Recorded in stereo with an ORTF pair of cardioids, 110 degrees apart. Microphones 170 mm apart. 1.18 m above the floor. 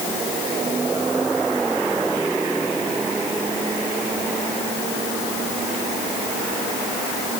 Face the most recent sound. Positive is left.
No sound to turn to.